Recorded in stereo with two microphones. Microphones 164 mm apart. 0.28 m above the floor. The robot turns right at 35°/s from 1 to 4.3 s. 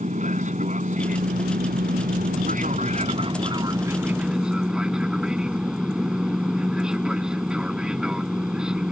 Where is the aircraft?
120° right; by 8.9 s 5° right.